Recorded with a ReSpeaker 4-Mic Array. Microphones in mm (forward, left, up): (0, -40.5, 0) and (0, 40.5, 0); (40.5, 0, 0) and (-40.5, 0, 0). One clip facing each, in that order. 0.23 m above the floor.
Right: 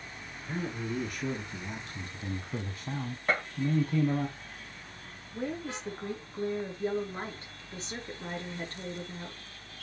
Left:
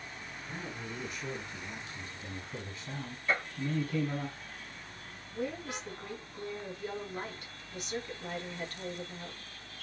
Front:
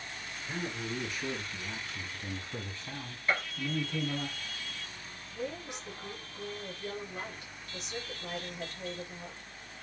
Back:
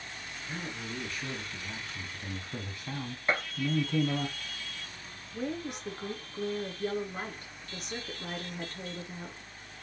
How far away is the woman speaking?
About 3.5 m.